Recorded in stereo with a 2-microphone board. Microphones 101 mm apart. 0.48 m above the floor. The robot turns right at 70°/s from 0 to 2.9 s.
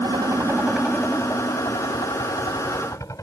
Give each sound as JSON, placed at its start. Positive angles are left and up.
{"t": 0.0, "sound": "a helicopter", "side_deg": -55}